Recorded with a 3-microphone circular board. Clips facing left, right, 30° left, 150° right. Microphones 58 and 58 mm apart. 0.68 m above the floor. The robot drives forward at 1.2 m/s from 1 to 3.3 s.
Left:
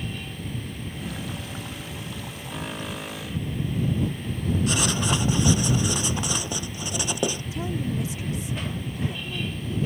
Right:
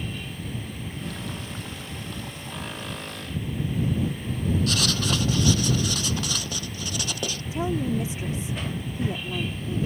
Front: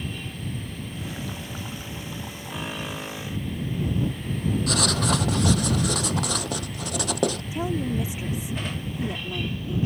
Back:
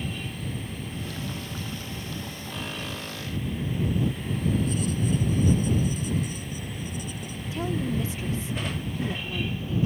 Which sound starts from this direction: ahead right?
A woman speaking, at 7.5 s.